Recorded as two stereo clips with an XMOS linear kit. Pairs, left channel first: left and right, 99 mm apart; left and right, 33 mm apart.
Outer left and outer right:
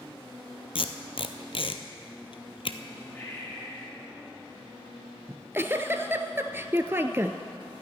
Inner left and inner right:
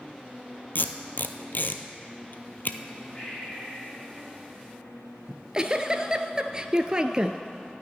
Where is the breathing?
20° left (ahead or behind), 3 m.